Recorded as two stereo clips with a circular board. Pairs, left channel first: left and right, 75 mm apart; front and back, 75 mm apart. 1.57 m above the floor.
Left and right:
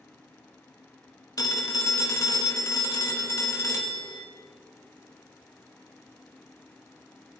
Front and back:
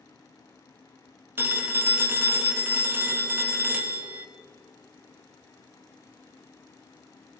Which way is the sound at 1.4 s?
125° left.